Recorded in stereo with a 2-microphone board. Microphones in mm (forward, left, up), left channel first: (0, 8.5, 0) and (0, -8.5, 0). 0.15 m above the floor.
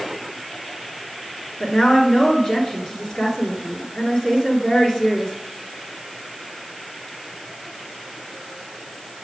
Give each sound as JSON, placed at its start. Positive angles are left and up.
{"t": 1.6, "sound": "a woman speaking", "side_deg": 40, "distance_m": 2.5}